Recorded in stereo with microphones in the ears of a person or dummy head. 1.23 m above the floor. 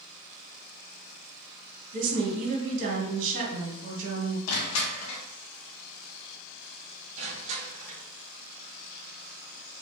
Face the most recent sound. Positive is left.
turn(degrees=-40)  # may be behind; listen again after turning